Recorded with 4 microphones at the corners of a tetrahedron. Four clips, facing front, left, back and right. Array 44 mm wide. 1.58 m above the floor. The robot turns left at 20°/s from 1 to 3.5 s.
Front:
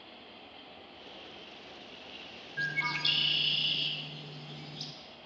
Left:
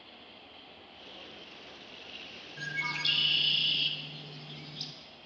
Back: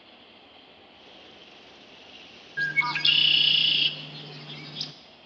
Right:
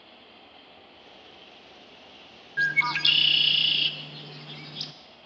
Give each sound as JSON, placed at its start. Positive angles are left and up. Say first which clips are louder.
{"t": 2.6, "sound": "a bird", "louder": "right 10 dB, back 7 dB", "azimuth_deg": -120, "distance_m": 0.5}